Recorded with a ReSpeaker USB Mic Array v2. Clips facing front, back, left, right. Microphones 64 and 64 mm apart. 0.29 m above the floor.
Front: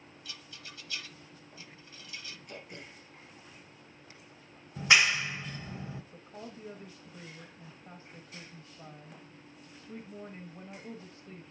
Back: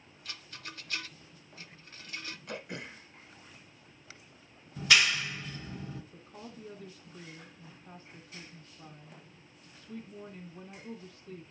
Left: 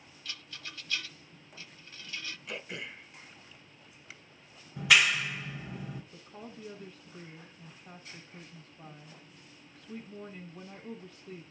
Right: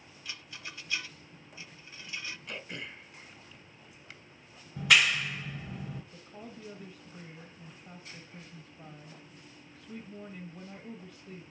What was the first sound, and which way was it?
A rattle, 155° right.